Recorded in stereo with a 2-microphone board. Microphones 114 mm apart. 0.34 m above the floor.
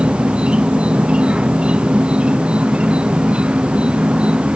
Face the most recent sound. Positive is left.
turn(degrees=-10)  # may be behind; listen again after turning